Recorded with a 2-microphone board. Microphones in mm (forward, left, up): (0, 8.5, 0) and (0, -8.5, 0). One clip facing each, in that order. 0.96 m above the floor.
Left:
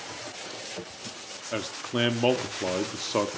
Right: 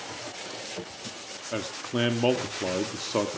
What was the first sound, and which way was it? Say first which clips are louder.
A man speaking: even; 5° left (ahead or behind).